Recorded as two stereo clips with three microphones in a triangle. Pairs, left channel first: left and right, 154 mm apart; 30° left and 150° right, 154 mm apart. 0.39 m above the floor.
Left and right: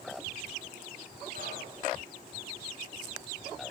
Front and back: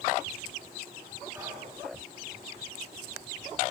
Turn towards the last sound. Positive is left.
turn(degrees=-80)